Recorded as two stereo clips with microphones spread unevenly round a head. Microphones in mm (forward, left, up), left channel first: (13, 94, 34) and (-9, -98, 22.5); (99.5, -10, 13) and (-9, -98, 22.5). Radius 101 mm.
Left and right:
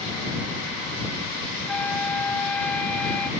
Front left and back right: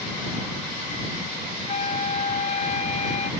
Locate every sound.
1.7 s a flute: straight ahead